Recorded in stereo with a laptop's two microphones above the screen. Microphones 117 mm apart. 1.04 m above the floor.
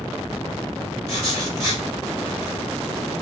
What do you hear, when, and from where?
1.1 s writing: 30° right (ahead or behind), 1.9 m